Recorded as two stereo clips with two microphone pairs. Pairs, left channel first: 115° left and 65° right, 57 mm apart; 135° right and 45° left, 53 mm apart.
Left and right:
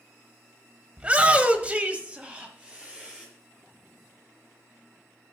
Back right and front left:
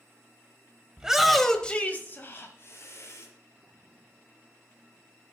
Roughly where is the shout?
Ahead.